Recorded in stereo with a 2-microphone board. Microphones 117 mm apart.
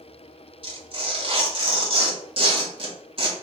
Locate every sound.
0.6 s tearing paper: 50° right (ahead or behind), 1.8 m